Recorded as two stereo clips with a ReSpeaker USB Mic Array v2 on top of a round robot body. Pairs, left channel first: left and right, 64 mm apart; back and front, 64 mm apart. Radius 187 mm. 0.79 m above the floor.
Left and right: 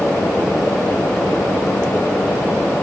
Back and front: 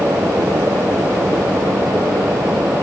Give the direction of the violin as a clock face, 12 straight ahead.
I don't hear a violin.